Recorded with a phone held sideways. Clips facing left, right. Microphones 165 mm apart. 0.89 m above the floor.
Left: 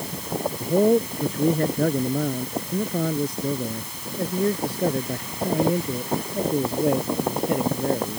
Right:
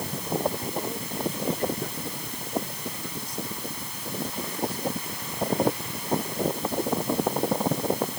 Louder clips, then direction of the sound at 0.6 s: Left 14 dB; 60° left (ahead or behind).